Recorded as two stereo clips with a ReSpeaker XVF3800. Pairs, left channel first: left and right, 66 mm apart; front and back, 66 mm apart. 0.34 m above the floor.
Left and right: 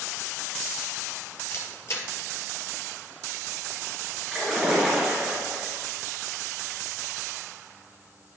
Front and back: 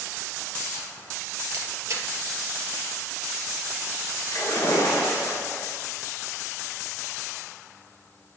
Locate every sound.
1.5 s a camera shutter: 135° left, 2 m
4.3 s a splash: 5° right, 3 m